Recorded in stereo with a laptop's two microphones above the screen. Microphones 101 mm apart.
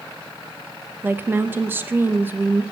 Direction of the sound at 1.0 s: 20° right (ahead or behind).